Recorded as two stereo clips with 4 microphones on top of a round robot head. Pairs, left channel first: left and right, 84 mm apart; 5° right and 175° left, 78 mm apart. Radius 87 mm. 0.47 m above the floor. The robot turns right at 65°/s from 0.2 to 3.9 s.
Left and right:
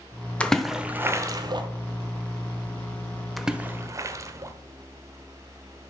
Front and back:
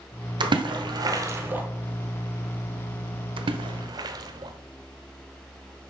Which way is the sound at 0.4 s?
165° left.